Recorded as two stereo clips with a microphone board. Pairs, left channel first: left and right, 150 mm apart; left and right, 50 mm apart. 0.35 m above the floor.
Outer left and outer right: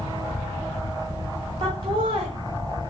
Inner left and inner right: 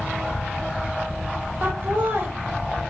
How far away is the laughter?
About 1.4 m.